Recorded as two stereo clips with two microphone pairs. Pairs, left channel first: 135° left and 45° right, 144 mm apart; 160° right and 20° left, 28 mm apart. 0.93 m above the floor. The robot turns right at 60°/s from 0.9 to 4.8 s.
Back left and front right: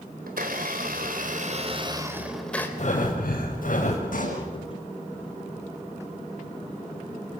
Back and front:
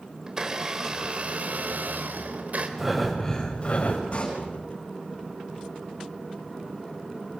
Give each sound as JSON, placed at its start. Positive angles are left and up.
{"t": 0.3, "sound": "a blender", "azimuth_deg": -45, "distance_m": 3.5}
{"t": 2.8, "sound": "breathing", "azimuth_deg": 100, "distance_m": 6.0}
{"t": 4.1, "sound": "a pop", "azimuth_deg": 155, "distance_m": 9.5}